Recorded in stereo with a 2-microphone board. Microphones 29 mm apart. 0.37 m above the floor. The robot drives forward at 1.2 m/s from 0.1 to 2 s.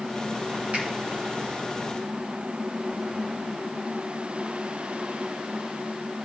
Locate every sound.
0.7 s a finger snap: 55° right (ahead or behind), 3.5 m; by 0.8 s 60° right (ahead or behind), 3.5 m